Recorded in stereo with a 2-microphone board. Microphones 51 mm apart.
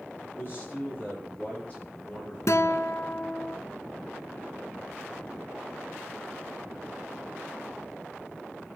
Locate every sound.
0.2 s a man speaking: 40° left (ahead or behind), 8 m; by 3.5 s 25° left (ahead or behind), 7.5 m
2.5 s a guitar: 75° left (ahead or behind), 0.8 m